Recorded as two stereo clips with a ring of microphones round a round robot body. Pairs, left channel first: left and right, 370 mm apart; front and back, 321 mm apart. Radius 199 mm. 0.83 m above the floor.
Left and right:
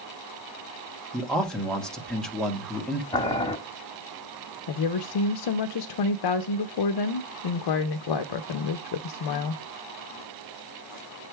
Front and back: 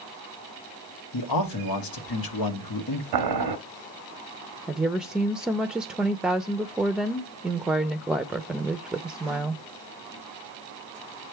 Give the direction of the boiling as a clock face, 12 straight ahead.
6 o'clock.